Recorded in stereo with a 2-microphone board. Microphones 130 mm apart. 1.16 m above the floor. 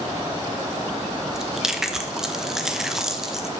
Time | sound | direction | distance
1.3 | chewing | 5° right (ahead or behind) | 0.8 m